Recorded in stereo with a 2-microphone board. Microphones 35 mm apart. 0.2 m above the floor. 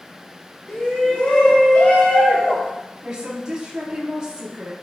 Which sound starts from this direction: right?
A woman speaking, at 3.0 s.